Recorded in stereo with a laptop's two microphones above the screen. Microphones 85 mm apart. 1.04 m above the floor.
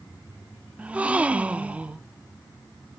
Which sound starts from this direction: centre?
A gasp, at 0.8 s.